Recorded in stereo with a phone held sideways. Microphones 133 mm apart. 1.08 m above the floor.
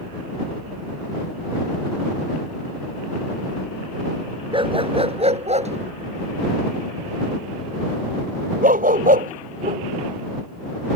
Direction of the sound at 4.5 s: 40° right (ahead or behind).